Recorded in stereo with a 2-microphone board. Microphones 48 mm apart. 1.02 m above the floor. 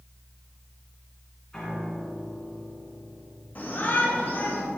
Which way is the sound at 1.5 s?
15° left (ahead or behind).